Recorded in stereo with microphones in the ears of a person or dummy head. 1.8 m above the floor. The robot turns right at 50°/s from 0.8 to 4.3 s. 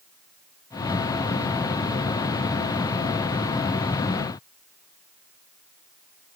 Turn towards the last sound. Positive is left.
No sound to turn to.